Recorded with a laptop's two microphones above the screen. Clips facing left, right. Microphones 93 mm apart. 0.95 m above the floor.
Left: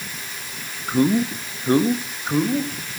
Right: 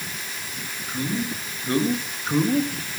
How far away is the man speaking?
About 1.4 m.